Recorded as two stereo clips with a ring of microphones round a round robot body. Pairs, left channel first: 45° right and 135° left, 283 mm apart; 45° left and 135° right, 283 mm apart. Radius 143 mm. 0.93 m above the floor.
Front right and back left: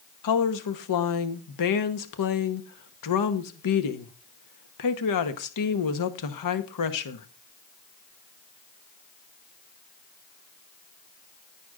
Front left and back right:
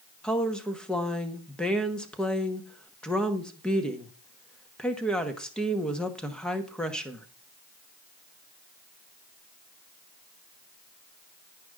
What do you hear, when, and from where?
0.2 s a woman speaking: 40° right, 1.1 m